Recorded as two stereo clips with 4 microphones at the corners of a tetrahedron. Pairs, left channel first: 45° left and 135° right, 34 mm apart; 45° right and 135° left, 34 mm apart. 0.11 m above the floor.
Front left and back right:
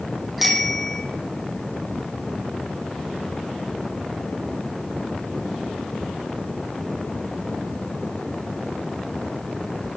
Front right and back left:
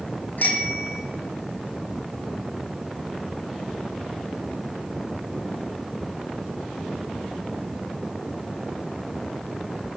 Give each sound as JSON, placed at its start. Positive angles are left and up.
{"t": 0.4, "sound": "a bicycle bell", "azimuth_deg": -50, "distance_m": 3.5}